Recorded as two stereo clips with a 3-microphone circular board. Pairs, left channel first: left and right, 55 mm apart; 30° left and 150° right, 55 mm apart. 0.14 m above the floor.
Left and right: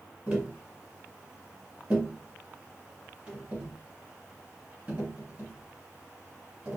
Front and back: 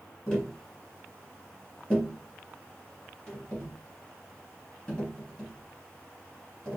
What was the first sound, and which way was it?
Tapping, 35° right.